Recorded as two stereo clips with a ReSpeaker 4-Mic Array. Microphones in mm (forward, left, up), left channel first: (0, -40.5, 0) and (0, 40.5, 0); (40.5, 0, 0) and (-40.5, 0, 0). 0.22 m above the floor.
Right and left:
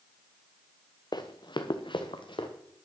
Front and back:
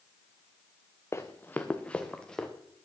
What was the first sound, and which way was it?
Running footsteps, 60° right.